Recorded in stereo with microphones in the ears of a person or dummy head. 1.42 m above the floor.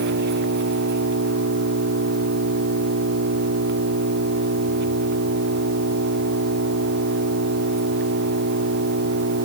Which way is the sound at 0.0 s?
55° right (ahead or behind).